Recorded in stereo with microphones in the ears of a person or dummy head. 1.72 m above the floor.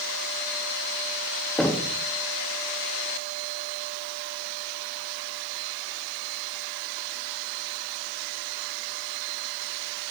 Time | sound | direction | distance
1.6 | knocking | 5° left (ahead or behind) | 0.7 m